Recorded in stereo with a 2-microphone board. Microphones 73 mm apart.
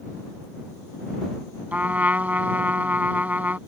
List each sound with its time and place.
1.7 s a trumpet: 25° right (ahead or behind)